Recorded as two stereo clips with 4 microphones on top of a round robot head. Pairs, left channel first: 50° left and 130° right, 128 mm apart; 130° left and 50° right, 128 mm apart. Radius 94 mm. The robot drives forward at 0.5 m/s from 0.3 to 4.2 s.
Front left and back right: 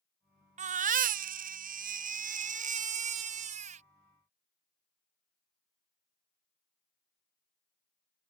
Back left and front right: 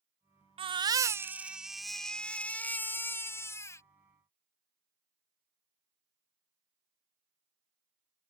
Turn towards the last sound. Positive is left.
turn(degrees=-165)